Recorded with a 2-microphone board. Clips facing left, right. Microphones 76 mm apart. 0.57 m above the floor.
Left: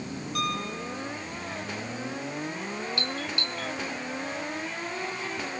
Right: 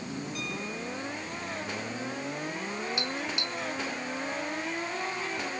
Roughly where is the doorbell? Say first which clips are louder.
Left 1 dB; centre.